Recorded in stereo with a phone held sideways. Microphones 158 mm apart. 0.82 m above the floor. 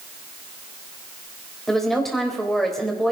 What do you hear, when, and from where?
1.7 s a woman speaking: centre (ahead or behind), 4 m